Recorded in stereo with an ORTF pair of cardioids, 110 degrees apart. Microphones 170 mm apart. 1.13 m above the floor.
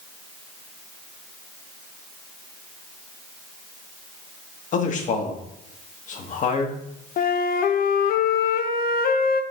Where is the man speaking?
50° left, 1.6 m.